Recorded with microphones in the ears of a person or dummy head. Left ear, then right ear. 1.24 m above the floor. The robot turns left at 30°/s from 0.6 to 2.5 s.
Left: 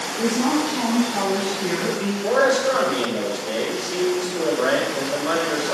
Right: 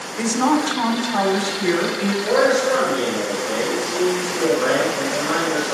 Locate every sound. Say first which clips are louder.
0.2 s a woman speaking: right 3 dB; 70° right, 3 m; by 2.1 s 115° right, 3 m
2.2 s a man speaking: right 1 dB; 30° left (ahead or behind), 4 m; by 5.8 s 20° left (ahead or behind), 4 m